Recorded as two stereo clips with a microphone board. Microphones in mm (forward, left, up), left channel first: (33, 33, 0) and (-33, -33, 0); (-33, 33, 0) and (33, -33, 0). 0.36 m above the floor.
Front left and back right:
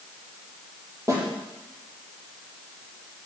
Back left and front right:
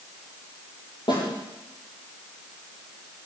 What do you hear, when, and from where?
1.1 s a snare drum: 170° left, 9.5 m